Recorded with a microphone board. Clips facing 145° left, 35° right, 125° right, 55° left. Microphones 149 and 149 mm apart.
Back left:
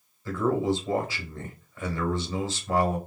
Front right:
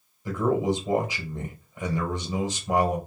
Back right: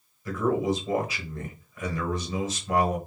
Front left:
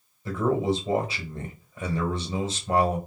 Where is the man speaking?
25° left, 1.0 m.